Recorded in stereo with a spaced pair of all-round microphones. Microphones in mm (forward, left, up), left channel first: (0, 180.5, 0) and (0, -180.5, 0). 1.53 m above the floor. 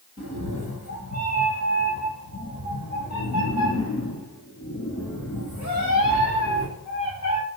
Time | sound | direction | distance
0.2 | a cat meowing | 45° left (ahead or behind) | 2 m